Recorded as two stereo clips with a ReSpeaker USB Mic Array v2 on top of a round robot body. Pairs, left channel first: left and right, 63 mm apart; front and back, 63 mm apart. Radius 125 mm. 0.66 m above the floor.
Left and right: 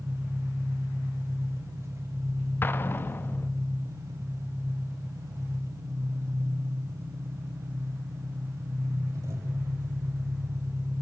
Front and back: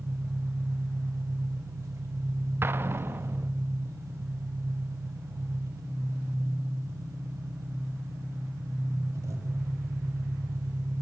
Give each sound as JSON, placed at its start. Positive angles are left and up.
{"t": 0.0, "sound": "an engine running", "azimuth_deg": -135, "distance_m": 3.0}
{"t": 2.6, "sound": "an explosion", "azimuth_deg": 140, "distance_m": 0.9}